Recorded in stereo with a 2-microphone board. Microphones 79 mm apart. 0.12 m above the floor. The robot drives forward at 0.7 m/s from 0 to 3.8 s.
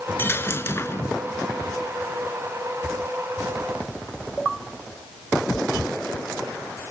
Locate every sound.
0.2 s a dropped coin: 30° left (ahead or behind), 0.8 m